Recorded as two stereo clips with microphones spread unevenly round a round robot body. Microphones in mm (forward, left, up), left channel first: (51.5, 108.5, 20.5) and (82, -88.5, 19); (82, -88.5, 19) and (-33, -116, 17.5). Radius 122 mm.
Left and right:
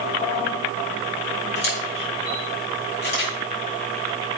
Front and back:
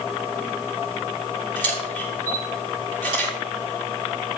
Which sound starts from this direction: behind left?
A camera shutter, at 1.6 s.